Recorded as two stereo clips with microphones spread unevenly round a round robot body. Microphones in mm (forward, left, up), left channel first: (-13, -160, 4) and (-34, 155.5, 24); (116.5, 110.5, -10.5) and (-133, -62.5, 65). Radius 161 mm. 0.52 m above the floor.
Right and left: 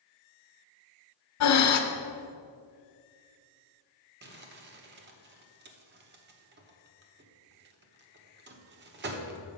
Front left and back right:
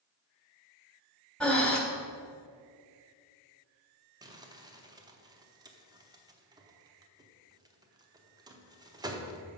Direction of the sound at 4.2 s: 125° left.